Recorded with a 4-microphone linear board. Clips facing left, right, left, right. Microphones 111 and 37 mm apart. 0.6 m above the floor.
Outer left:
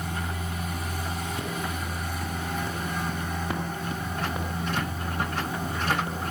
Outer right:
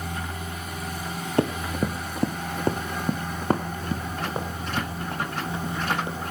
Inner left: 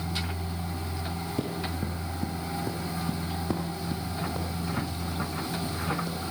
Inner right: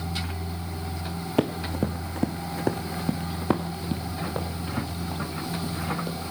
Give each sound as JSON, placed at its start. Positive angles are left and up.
{"t": 1.4, "sound": "running footsteps", "side_deg": -65, "distance_m": 1.9}